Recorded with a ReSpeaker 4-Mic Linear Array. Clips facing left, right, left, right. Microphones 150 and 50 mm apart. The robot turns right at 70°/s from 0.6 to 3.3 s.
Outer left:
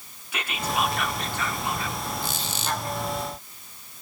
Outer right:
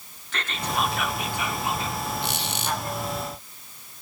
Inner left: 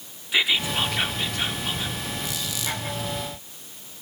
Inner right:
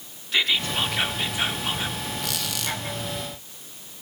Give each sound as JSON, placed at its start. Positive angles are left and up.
{"t": 0.3, "sound": "whispering", "side_deg": 10, "distance_m": 0.7}
{"t": 2.2, "sound": "a squeak", "azimuth_deg": -95, "distance_m": 1.2}